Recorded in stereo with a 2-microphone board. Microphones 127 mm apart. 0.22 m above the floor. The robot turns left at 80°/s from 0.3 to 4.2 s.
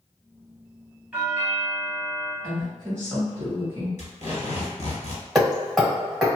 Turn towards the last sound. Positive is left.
turn(degrees=-5)  # may be behind; listen again after turning